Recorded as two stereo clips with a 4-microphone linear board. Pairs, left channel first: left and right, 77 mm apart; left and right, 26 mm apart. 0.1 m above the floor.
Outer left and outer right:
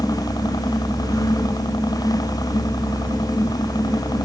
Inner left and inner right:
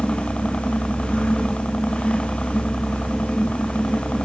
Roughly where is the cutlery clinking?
No cutlery clinking in this recording.